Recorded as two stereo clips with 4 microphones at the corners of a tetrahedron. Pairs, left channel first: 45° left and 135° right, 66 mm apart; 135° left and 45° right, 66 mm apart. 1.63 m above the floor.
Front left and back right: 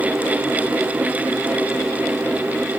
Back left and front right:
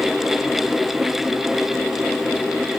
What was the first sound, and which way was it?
Only background noise.